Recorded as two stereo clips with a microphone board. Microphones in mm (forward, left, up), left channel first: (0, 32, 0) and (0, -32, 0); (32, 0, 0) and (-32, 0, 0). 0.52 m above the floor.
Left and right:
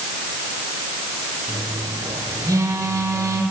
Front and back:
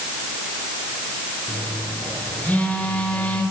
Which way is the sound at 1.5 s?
65° right.